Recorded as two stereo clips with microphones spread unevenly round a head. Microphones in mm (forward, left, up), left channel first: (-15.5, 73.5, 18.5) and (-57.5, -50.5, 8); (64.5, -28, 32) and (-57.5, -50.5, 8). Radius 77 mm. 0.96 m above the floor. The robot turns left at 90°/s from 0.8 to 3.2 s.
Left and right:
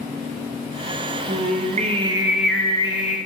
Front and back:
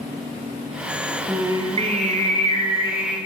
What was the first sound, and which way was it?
Singing, 90° right.